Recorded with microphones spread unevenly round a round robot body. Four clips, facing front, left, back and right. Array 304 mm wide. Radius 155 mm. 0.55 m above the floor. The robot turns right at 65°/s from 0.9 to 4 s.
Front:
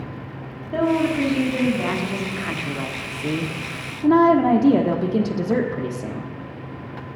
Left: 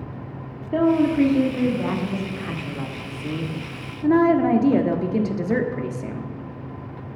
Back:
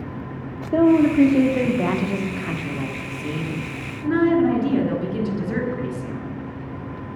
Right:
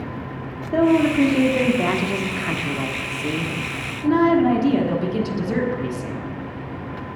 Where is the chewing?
I don't hear chewing.